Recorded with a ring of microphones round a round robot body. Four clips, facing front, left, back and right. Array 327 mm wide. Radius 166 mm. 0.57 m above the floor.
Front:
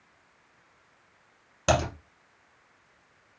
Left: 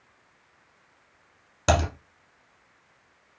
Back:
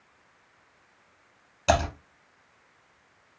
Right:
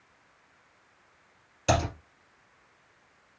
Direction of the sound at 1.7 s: 65° left.